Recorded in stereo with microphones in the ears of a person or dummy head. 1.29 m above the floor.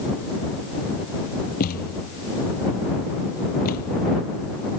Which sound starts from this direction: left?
A thud, at 1.6 s.